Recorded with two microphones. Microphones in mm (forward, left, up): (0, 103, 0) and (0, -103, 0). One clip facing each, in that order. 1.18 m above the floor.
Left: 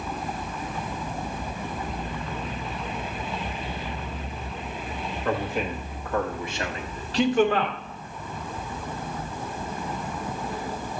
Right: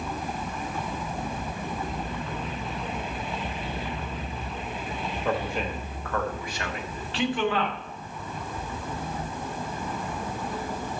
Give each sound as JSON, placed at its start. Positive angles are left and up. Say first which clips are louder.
{"t": 5.2, "sound": "a man speaking", "louder": "left 2 dB", "side_deg": -5, "distance_m": 1.4}